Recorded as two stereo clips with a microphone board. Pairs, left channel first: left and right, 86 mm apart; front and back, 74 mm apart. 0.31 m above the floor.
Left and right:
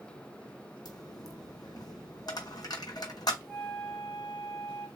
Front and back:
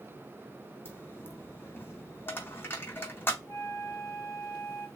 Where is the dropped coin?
55° left, 0.7 m.